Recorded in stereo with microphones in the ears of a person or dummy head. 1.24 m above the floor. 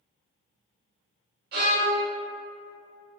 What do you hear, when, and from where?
1.5 s a violin: 60° right (ahead or behind), 0.8 m